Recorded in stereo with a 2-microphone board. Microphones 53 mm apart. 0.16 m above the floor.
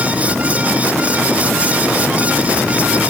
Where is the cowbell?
I don't hear a cowbell.